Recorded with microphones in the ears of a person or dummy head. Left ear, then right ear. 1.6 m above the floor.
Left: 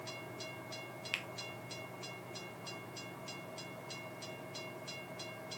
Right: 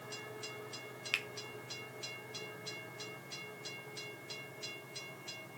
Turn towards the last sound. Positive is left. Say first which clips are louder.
# right 4 dB
turn(degrees=-5)  # may be behind; listen again after turning